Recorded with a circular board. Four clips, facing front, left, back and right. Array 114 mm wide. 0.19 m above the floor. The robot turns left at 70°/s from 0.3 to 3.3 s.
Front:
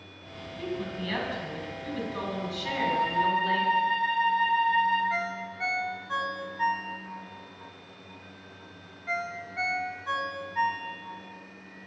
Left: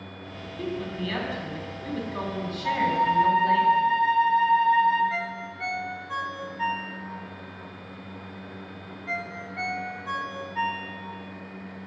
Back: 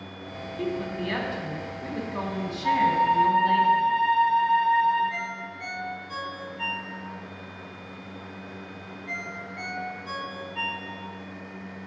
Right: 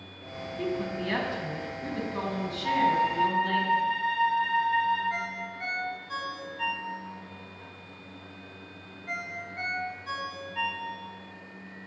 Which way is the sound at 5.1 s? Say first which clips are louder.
Left 2 dB, front 2 dB; 40° left.